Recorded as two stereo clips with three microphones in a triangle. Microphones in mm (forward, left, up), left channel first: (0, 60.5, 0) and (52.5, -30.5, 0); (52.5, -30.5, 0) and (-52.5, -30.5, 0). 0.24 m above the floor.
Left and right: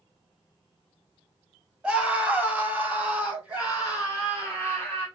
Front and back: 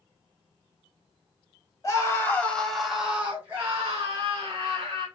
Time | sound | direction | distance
1.8 | a scream | 10° left | 1.1 m